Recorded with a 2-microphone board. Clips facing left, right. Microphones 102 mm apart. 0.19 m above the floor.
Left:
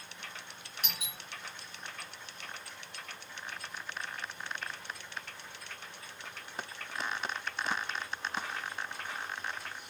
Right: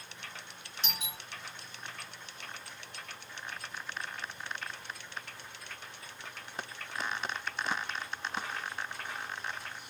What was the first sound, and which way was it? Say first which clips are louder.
A doorbell: right 4 dB; 30° right (ahead or behind).